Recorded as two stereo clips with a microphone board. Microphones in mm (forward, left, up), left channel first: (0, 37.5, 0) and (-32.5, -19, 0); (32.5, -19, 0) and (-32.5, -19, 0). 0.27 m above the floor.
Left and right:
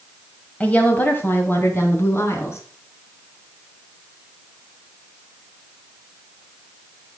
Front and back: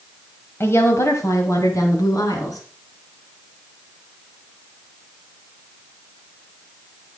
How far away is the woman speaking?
About 1.6 m.